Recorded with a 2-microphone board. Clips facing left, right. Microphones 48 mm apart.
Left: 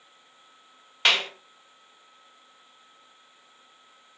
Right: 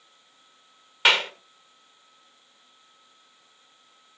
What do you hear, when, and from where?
1.1 s a clap: 5° right (ahead or behind), 1.7 m